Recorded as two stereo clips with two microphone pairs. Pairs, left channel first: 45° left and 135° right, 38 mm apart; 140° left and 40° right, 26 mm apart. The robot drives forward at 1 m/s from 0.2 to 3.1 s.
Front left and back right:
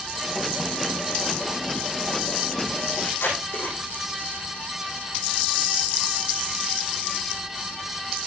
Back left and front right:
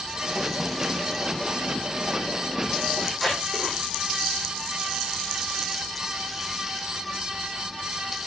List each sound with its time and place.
3.0 s tape being pulled: 45° left, 9 m